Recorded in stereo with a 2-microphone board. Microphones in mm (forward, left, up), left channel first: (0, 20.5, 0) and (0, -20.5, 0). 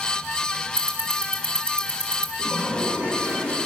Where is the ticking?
25° left (ahead or behind), 2 m.